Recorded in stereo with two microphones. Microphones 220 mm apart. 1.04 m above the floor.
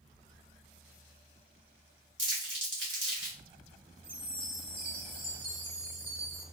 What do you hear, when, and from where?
2.2 s crumpling: 60° right (ahead or behind), 1.7 m
4.0 s a chime: 25° right (ahead or behind), 1.7 m